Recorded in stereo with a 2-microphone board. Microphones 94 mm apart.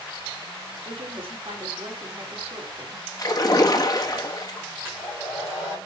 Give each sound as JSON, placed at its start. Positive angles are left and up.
{"t": 0.8, "sound": "a woman speaking", "side_deg": -70, "distance_m": 3.0}
{"t": 3.2, "sound": "a splash", "side_deg": 40, "distance_m": 1.9}
{"t": 4.8, "sound": "a hair dryer", "side_deg": -20, "distance_m": 5.5}